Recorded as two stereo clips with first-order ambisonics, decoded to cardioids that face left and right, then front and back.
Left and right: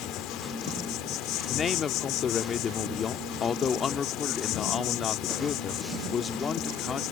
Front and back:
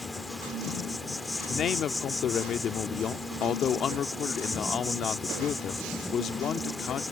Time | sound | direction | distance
0.0 | an insect | 80° left | ?
1.5 | a man speaking | 40° left | ?